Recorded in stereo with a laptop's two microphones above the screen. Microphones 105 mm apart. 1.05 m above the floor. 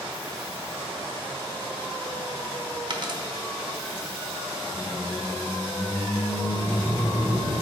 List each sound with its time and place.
2.9 s a dropped coin: 45° right (ahead or behind), 1.0 m
4.7 s a squeak: 50° left (ahead or behind), 2.5 m